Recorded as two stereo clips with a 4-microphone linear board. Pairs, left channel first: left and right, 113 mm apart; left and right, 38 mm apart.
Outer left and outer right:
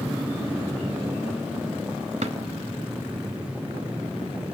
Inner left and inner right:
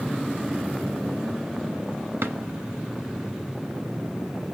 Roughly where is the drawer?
Right.